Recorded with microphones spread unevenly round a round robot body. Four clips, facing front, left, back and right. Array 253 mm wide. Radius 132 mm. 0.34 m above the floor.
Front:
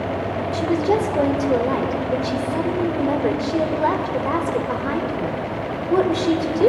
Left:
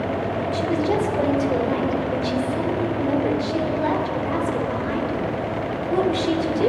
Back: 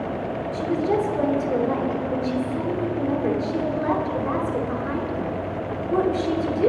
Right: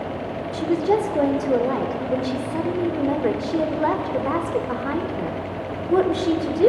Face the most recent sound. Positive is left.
turn(degrees=-45)